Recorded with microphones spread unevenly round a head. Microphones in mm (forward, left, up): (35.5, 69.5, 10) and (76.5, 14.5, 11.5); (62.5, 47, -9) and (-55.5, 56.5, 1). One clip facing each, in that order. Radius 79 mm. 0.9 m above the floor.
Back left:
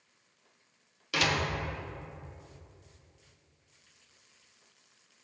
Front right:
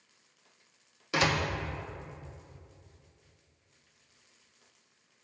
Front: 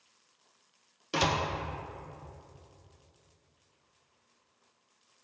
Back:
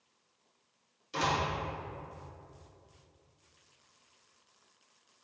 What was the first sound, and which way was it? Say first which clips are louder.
A door slam: front right 2 dB, front 2 dB; 10° left.